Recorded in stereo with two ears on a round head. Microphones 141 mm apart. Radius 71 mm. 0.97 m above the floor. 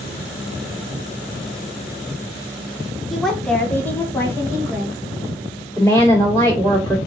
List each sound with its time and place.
3.1 s a woman speaking: centre (ahead or behind), 0.8 m; by 5.0 s 20° left (ahead or behind), 1.5 m
5.8 s a woman speaking: 15° left (ahead or behind), 2.0 m